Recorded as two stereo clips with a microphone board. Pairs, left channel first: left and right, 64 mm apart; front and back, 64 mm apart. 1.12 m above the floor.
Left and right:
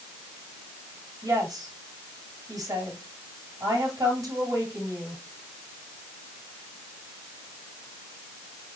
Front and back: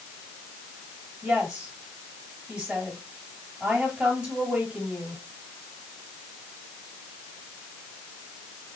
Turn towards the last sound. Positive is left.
turn(degrees=-105)